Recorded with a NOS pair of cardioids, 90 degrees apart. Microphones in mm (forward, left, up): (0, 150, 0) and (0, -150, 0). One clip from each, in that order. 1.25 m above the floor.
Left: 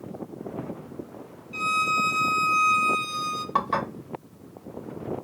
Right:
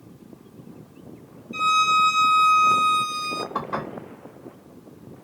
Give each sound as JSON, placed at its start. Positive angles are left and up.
{"t": 1.5, "sound": "a violin", "azimuth_deg": 0, "distance_m": 0.7}
{"t": 3.5, "sound": "dishes clattering", "azimuth_deg": 60, "distance_m": 1.9}